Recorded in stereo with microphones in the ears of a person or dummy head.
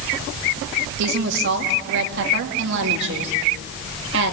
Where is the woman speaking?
60° right (ahead or behind), 2.5 m.